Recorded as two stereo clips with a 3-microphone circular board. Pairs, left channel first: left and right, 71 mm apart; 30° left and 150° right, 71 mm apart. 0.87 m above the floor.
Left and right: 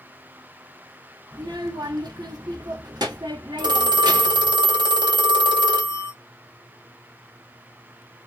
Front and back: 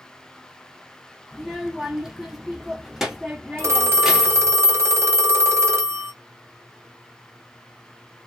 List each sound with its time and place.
1.3 s a child speaking: 65° right, 1.1 m
3.6 s a phone ringing: 100° right, 0.7 m